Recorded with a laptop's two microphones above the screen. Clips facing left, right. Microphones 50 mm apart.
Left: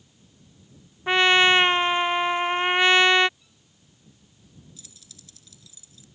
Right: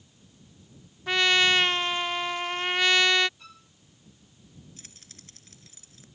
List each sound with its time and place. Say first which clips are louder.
1.1 s a trumpet: left 5 dB; 25° left (ahead or behind)
3.4 s a violin: right 12 dB; 85° right
4.8 s keys jangling: right 1 dB; 45° right (ahead or behind)